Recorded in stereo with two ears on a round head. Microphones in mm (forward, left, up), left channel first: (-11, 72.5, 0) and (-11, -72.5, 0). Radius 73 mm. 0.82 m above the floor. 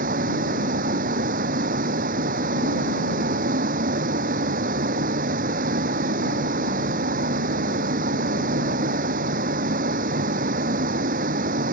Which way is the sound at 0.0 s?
50° right (ahead or behind).